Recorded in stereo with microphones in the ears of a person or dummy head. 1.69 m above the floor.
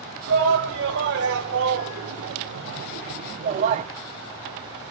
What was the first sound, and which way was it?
A shout, 70° right (ahead or behind).